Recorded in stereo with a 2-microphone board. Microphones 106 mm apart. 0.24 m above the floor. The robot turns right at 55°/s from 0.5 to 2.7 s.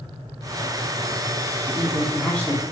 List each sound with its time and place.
1.7 s a woman speaking: 20° right, 2.5 m; by 2.6 s 35° left, 2.5 m